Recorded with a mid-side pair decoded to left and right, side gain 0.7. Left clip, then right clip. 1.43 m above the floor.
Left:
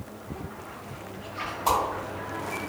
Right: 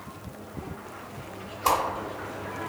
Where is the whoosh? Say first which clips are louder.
Right 1 dB; 65° right, 1.3 m.